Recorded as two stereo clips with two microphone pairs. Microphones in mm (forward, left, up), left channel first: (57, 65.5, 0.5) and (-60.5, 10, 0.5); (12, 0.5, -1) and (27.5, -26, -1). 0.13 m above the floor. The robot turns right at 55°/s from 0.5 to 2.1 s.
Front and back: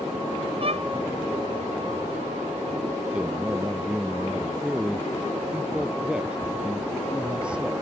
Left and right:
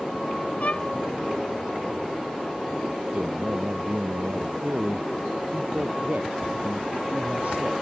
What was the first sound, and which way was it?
A violin, 160° left.